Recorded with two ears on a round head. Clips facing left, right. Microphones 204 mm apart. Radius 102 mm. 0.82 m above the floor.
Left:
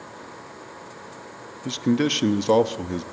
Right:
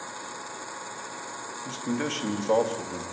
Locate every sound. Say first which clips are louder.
1.6 s a man speaking: left 9 dB; 50° left (ahead or behind), 0.9 m